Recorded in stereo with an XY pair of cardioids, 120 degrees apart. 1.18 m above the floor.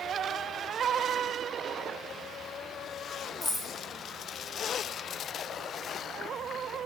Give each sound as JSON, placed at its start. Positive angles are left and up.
{"t": 3.4, "sound": "keys jangling", "azimuth_deg": 25, "distance_m": 0.8}